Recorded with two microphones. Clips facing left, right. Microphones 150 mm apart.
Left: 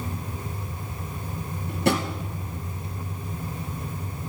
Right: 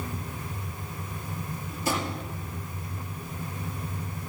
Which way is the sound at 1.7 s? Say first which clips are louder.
Left 6 dB; 65° left (ahead or behind).